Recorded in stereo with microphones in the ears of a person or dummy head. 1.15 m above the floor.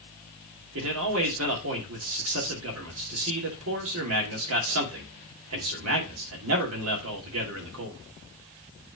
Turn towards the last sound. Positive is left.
turn(degrees=-80)